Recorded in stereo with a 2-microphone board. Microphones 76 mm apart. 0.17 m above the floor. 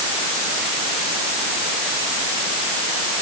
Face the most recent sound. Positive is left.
No sound to turn to.